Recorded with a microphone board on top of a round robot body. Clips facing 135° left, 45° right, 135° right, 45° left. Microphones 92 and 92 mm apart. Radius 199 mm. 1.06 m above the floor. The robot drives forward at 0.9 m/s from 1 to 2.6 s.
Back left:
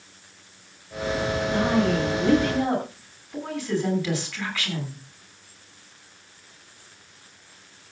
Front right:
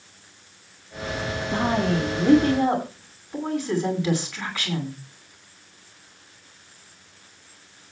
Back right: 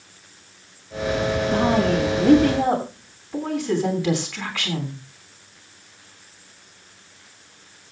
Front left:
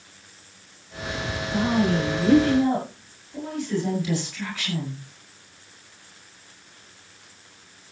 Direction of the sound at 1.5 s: 110° right.